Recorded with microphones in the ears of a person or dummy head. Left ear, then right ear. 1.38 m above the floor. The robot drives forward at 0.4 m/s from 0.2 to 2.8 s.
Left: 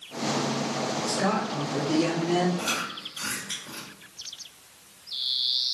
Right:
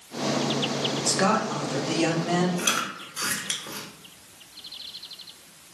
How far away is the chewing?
About 1.1 m.